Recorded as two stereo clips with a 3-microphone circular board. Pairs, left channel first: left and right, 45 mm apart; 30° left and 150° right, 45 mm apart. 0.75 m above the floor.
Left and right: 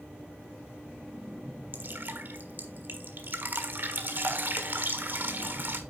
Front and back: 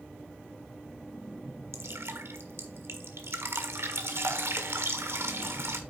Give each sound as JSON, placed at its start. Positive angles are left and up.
{"t": 1.7, "sound": "dripping", "azimuth_deg": -130, "distance_m": 1.5}